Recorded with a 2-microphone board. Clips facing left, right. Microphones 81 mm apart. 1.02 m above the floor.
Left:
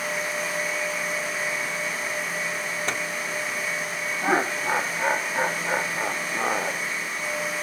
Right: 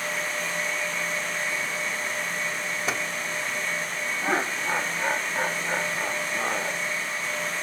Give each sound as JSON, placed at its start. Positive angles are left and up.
{"t": 2.9, "sound": "a microwave", "side_deg": -5}
{"t": 4.2, "sound": "laughter", "side_deg": 15}